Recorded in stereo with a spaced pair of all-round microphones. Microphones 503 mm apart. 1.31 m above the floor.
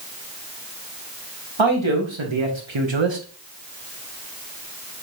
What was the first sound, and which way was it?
A man speaking, 65° right (ahead or behind).